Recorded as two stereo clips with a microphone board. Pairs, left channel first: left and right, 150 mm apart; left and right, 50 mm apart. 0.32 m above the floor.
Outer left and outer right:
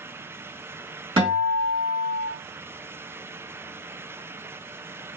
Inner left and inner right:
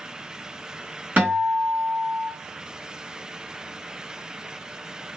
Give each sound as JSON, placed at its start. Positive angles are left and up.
{"t": 1.2, "sound": "a guitar", "side_deg": -35, "distance_m": 2.0}